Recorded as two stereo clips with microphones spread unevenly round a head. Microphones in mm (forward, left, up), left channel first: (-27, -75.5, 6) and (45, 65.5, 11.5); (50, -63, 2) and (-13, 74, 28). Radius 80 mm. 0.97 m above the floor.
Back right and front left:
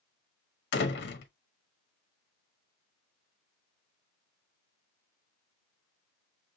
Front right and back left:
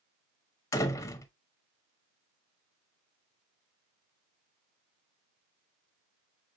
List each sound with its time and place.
0.7 s a door slam: 135° right, 0.9 m